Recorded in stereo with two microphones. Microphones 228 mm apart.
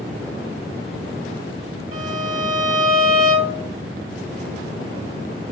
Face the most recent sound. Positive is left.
turn(degrees=-70)  # may be behind; listen again after turning